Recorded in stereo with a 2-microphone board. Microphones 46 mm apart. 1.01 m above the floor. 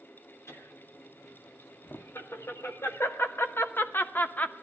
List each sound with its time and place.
0.5 s laughter: 75° left (ahead or behind), 2.5 m; by 4.5 s 30° left (ahead or behind), 0.7 m